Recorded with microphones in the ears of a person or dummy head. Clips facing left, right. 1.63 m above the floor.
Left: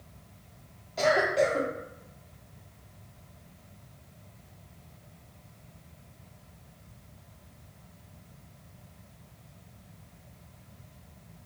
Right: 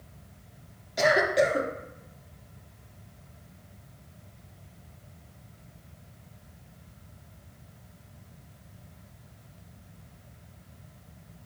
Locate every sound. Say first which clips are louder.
1.0 s a cough: right 1 dB; 15° right (ahead or behind), 0.5 m